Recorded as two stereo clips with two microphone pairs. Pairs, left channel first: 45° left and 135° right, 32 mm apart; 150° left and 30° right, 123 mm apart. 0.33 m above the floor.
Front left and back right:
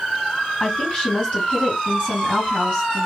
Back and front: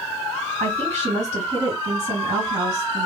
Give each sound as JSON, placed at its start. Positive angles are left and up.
{"t": 0.6, "sound": "a woman speaking", "azimuth_deg": -5, "distance_m": 2.0}